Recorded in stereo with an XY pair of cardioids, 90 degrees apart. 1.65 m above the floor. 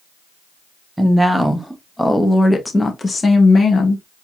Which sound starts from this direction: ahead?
A woman speaking, at 1.0 s.